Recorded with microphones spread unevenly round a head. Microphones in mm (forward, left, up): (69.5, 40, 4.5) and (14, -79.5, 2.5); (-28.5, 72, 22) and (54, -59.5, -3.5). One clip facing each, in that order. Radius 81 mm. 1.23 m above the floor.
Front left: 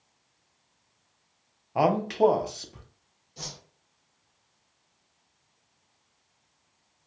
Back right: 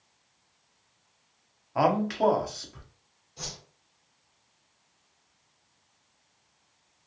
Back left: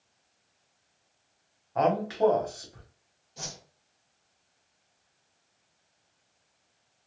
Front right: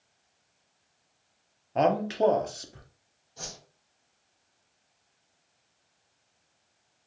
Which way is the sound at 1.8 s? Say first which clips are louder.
Front left 2 dB, front right 1 dB; straight ahead.